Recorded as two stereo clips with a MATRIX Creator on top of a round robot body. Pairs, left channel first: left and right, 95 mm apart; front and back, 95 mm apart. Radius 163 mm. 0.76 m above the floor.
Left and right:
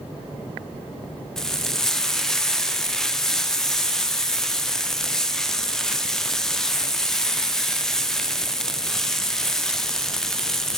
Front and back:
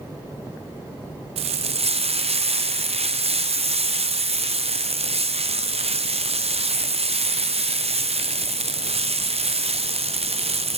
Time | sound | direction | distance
1.4 | frying | 175° left | 0.8 m